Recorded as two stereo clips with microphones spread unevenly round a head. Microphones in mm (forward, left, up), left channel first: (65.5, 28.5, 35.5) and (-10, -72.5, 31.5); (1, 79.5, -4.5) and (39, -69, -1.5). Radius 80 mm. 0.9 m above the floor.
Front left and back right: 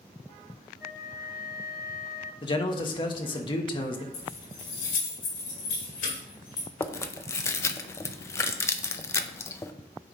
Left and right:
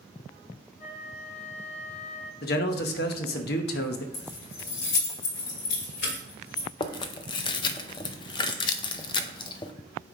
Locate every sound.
0.8 s a flute: 60° left, 3.5 m
2.4 s a man speaking: 105° left, 0.9 m
4.1 s keys jangling: 85° left, 2.5 m
6.8 s chewing: 100° left, 0.5 m